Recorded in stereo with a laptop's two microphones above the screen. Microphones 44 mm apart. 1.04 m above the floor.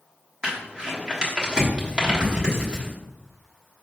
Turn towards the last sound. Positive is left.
turn(degrees=-20)  # may be behind; listen again after turning